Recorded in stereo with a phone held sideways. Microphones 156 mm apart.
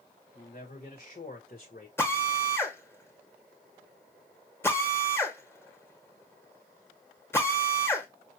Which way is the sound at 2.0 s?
15° left (ahead or behind).